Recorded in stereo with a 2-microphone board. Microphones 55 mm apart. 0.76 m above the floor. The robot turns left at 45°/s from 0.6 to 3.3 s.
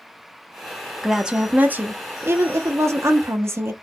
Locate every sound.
1.0 s a woman speaking: 5° right, 0.7 m; by 3.7 s 105° right, 0.7 m